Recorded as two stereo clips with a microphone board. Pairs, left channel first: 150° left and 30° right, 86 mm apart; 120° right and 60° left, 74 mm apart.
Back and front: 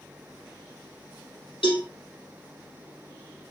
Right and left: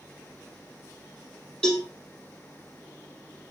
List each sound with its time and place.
1.6 s a cowbell: 155° left, 4.5 m